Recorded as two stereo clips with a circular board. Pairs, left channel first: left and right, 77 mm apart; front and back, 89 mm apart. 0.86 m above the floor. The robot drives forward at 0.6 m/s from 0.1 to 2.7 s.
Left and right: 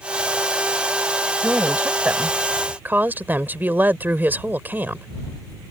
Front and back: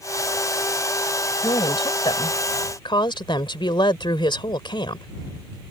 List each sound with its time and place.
1.4 s a woman speaking: 20° right; by 5.1 s 25° right